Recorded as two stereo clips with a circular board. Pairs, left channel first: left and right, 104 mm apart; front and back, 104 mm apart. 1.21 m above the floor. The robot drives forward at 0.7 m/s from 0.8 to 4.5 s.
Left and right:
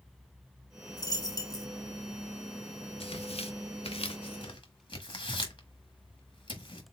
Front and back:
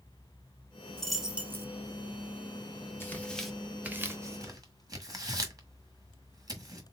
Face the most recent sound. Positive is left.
turn(degrees=130)